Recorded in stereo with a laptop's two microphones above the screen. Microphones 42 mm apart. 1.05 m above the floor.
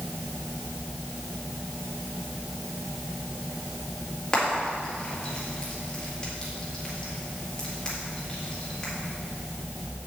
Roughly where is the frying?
Left.